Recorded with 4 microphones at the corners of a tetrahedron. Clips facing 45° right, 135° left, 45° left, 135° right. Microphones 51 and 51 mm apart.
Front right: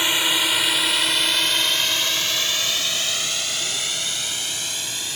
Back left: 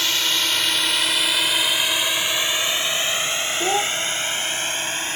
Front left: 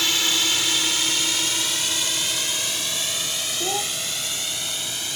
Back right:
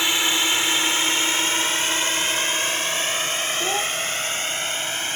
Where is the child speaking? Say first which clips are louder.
Back left 7 dB, even; 140° left.